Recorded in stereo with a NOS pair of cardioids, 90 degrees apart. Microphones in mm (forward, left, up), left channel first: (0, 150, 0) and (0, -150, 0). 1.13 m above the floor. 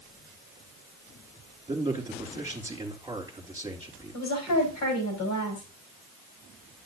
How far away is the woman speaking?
About 4.5 m.